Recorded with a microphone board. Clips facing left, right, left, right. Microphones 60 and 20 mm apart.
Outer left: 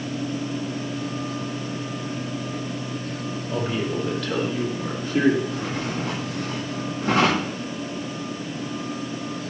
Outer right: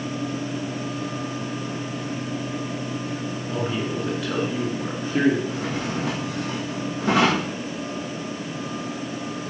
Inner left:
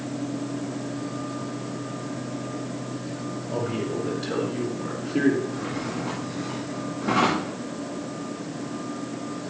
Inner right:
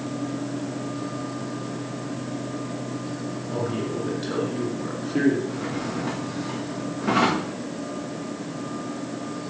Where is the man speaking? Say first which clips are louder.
Outer left 1 dB, even; centre (ahead or behind), 3 m; by 5.4 s 25° right (ahead or behind), 3.5 m.